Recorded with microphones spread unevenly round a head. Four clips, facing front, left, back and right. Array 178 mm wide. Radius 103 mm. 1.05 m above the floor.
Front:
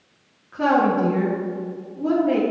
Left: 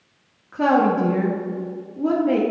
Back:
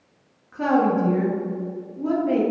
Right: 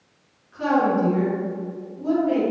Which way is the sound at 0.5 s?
70° left.